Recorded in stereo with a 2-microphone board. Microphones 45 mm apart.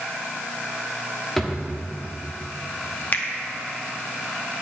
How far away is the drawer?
About 1.1 m.